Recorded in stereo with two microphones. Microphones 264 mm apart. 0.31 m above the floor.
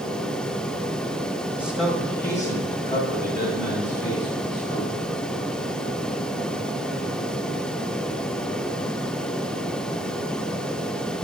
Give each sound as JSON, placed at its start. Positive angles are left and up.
{"t": 1.6, "sound": "a man speaking", "side_deg": -5, "distance_m": 1.5}